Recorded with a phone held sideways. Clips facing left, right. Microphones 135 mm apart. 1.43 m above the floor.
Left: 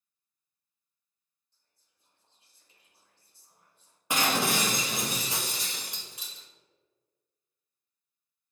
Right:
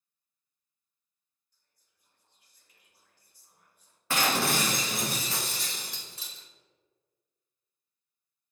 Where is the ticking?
I don't hear ticking.